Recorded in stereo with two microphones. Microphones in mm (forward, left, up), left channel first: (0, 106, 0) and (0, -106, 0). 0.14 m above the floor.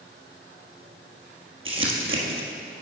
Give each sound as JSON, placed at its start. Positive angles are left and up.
{"t": 1.6, "sound": "crumpling", "side_deg": -70, "distance_m": 1.2}